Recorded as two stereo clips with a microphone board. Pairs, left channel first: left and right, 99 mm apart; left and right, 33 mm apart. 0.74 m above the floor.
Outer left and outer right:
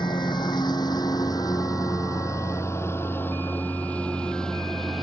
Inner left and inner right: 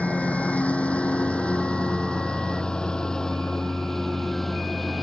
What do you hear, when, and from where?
0.0 s a lawn mower: 50° left (ahead or behind); by 5.0 s centre (ahead or behind)